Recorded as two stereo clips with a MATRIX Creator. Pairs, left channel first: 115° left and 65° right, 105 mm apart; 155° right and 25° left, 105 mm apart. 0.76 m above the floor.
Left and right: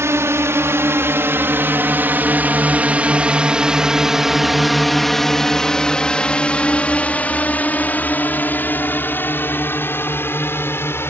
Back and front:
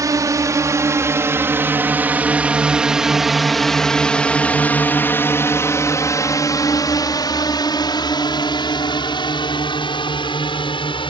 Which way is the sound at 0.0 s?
15° right.